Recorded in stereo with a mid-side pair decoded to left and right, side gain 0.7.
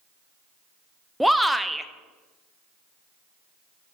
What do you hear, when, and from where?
1.2 s a shout: straight ahead, 0.7 m